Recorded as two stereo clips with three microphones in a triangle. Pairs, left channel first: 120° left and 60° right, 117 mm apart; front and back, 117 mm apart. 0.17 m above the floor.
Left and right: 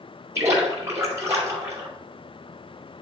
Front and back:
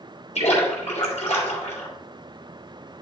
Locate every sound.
0.3 s a splash: 5° left, 3.5 m